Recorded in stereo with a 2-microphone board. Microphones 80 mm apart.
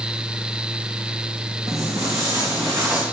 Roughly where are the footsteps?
Right.